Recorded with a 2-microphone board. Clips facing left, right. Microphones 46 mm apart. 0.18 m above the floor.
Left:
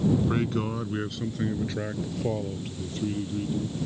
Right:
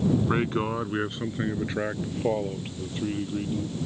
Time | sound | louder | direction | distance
0.3 | a man speaking | right 2 dB | 25° right (ahead or behind) | ?